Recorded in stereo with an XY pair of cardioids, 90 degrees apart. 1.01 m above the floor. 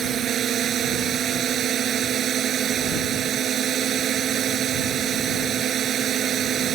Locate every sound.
0.0 s a drone: 70° right